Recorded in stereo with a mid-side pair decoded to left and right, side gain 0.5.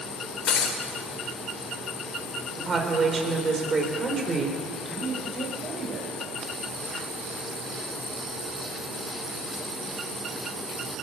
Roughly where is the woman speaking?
Ahead right.